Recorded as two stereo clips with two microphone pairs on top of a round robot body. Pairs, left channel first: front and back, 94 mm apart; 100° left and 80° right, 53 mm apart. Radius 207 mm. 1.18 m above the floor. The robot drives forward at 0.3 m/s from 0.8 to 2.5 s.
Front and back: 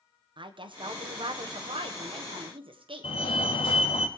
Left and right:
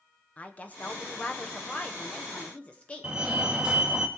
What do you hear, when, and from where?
0.4 s a woman speaking: 155° left, 1.4 m; by 3.1 s 165° left, 1.8 m
3.0 s a fire alarm: 10° right, 2.5 m